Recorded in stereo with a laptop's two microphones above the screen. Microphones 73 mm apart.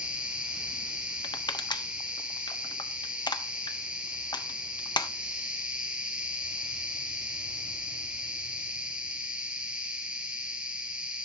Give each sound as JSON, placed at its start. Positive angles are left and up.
{"t": 0.0, "sound": "an insect", "side_deg": -20, "distance_m": 1.3}
{"t": 1.2, "sound": "crushing", "side_deg": 85, "distance_m": 0.6}